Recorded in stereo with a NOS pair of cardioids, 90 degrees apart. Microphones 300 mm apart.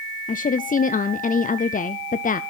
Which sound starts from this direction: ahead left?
A woman speaking, at 0.3 s.